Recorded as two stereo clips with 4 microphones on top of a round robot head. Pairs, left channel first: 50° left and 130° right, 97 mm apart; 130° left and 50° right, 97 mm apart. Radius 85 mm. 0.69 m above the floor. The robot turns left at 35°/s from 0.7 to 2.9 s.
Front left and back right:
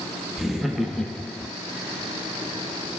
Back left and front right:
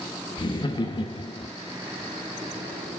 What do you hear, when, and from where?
0.4 s laughter: 145° left, 0.8 m; by 1.5 s 115° left, 0.8 m